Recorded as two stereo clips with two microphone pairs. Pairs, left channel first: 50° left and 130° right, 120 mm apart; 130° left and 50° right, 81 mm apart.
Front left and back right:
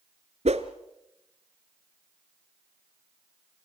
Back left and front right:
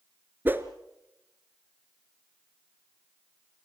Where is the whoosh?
115° right, 1.3 m.